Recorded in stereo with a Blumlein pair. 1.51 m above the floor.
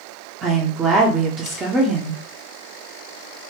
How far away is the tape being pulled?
I don't hear tape being pulled.